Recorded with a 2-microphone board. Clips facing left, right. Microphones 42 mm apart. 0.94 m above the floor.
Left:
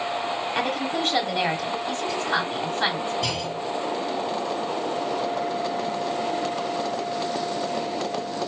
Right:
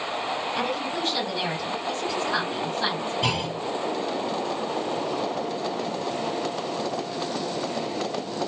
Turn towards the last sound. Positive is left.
turn(degrees=-20)  # may be behind; listen again after turning